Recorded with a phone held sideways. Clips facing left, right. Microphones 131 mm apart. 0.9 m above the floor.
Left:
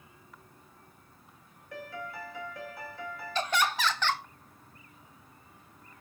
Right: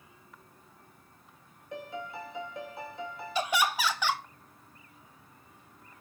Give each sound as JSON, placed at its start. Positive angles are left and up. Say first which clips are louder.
{"t": 1.7, "sound": "a piano", "louder": "right 2 dB", "side_deg": -20, "distance_m": 0.6}
{"t": 3.4, "sound": "laughter", "louder": "right 1 dB", "side_deg": -10, "distance_m": 0.6}